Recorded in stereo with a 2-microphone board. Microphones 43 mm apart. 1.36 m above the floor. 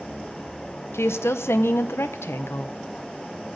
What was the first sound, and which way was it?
A woman speaking, 75° left (ahead or behind).